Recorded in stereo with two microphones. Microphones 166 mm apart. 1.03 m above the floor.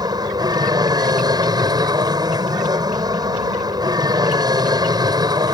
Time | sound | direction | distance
0.0 | an aircraft | 25° right (ahead or behind) | ?